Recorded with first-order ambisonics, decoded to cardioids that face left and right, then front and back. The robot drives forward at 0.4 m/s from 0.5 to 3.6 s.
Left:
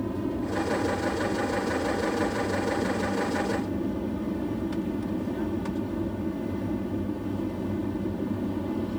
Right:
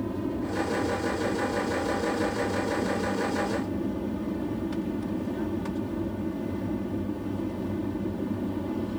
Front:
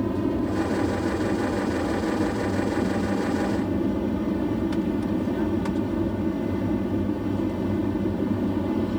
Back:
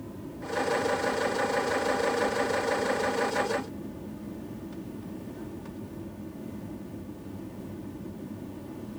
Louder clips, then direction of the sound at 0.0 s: Left 1 dB, front 15 dB; straight ahead.